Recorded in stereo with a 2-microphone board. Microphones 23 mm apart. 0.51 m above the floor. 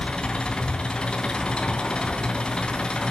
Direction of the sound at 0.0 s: 40° left (ahead or behind).